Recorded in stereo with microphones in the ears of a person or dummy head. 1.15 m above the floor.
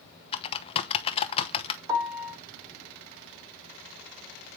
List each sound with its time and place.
0.3 s typing on a keyboard: 30° left (ahead or behind), 0.8 m
1.9 s a piano: 20° right (ahead or behind), 2 m